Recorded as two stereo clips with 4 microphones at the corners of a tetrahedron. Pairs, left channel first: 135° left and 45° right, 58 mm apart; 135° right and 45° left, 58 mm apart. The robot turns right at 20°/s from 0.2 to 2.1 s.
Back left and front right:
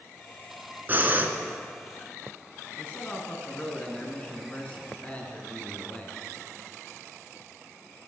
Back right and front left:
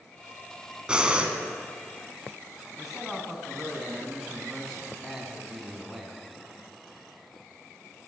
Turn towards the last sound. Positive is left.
turn(degrees=130)